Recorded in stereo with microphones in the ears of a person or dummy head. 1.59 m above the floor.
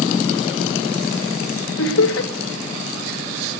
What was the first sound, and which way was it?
Laughter, 65° left (ahead or behind).